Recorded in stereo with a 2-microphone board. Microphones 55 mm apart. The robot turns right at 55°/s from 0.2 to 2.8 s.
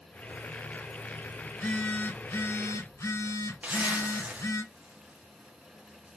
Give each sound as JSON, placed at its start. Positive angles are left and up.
{"t": 1.5, "sound": "a phone buzzing", "azimuth_deg": 20, "distance_m": 2.0}
{"t": 3.6, "sound": "a zipper", "side_deg": -30, "distance_m": 1.2}